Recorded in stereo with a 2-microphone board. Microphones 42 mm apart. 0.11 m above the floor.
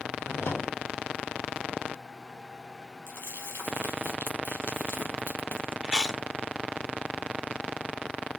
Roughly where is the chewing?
Centre.